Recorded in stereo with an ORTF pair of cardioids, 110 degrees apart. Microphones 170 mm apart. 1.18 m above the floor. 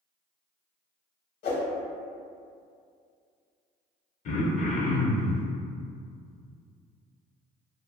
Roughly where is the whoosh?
Ahead left.